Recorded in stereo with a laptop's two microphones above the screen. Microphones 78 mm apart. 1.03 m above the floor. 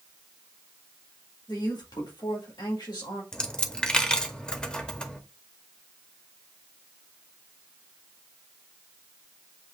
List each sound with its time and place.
1.5 s a man speaking: 75° left (ahead or behind), 1.9 m
3.3 s a dropped coin: 10° left (ahead or behind), 0.7 m